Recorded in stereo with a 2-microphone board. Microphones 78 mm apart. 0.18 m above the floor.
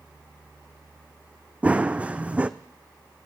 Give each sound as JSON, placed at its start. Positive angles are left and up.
{"t": 1.6, "sound": "running footsteps", "side_deg": -15, "distance_m": 0.5}